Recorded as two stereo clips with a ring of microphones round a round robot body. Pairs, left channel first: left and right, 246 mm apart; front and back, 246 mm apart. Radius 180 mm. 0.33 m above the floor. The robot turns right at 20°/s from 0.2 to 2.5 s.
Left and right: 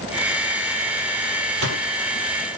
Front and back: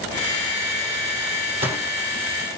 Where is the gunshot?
110° right, 5.5 m; by 1.8 s 105° right, 5.5 m.